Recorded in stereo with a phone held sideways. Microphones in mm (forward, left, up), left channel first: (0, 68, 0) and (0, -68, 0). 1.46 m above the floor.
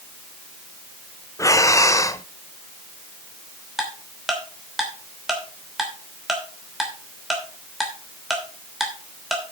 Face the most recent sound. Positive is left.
turn(degrees=0)  # may be behind; listen again after turning